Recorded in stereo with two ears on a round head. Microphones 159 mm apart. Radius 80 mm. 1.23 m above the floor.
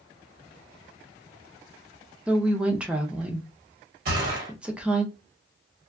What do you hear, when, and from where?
2.3 s a woman speaking: 5° right (ahead or behind), 0.5 m
4.0 s a gunshot: 55° right (ahead or behind), 1.2 m